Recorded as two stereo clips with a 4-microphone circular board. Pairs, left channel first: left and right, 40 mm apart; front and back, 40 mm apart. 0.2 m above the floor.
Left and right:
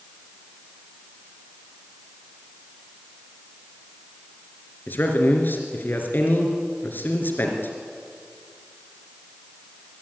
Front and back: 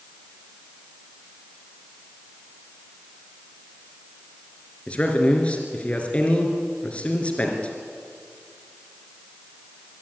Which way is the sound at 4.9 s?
60° left.